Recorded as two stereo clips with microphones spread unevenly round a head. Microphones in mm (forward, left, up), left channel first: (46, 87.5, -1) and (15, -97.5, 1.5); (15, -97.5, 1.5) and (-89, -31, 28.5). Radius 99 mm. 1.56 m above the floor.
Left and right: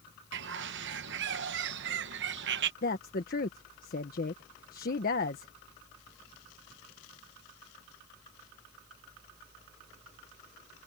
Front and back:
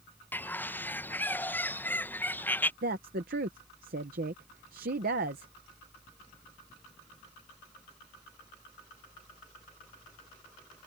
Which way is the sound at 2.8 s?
130° left.